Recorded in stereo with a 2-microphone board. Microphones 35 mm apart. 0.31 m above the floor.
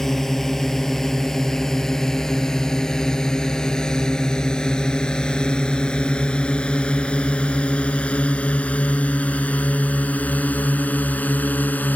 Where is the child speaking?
I don't hear a child speaking.